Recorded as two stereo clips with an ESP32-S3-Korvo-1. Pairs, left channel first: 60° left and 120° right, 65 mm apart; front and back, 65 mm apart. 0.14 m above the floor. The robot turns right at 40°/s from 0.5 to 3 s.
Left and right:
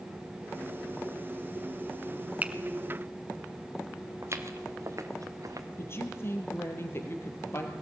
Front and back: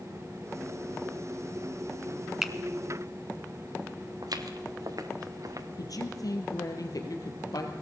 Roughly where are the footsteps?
Behind.